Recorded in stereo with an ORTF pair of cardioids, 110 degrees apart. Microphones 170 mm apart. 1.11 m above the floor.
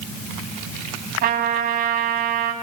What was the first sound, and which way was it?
A trumpet, 65° right.